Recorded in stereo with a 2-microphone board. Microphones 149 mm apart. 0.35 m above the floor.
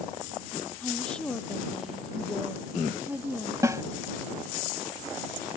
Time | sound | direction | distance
0.8 | a woman speaking | 10° left (ahead or behind) | ?
3.6 | a snare drum | 20° right (ahead or behind) | ?